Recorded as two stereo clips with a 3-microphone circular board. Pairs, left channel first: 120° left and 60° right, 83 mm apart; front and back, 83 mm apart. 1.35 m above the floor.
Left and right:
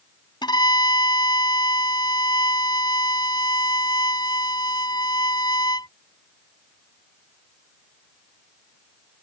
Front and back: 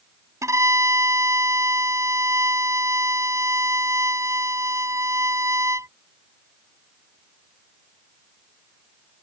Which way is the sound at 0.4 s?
130° left.